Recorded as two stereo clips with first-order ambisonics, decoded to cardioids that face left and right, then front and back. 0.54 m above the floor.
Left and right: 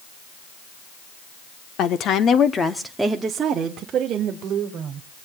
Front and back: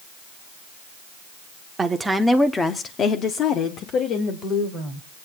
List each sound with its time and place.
1.8 s a woman speaking: 110° left, 1.1 m; by 5.1 s 45° right, 2.5 m